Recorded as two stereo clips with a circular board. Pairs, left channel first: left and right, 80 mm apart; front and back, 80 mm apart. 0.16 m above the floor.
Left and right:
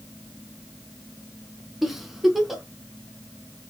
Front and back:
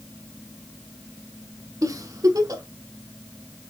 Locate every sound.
1.8 s a giggle: 175° right, 0.9 m